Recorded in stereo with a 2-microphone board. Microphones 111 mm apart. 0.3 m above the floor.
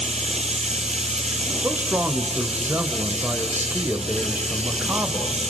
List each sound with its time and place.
0.0 s running water: 70° right (ahead or behind), 1.7 m
1.6 s a man speaking: 20° right (ahead or behind), 1.2 m